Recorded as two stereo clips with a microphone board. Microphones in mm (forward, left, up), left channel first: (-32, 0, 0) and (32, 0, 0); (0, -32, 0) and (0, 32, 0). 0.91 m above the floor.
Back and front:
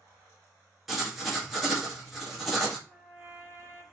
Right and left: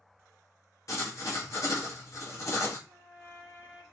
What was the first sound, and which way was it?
Writing, 85° right.